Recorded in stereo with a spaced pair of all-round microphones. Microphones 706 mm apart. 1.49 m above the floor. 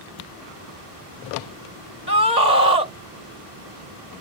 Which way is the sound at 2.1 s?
70° right (ahead or behind).